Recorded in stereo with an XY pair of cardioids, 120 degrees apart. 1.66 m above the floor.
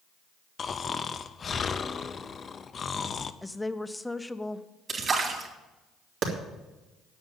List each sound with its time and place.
0.6 s snoring: 35° left, 0.7 m
3.4 s a woman speaking: 5° left, 0.8 m
4.9 s a splash: 35° right, 3 m
6.2 s a clap: 60° right, 3 m